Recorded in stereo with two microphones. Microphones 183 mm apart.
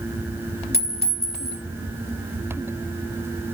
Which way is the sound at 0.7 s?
65° left (ahead or behind).